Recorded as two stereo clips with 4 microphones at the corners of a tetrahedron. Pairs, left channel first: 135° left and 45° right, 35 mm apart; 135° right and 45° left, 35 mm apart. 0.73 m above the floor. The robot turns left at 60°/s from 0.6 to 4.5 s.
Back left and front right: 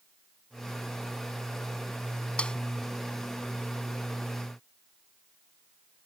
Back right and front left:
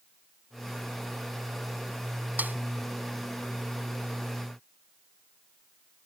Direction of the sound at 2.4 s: 75° left.